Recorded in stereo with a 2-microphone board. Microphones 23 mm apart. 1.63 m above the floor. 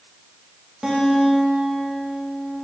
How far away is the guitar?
About 1.5 m.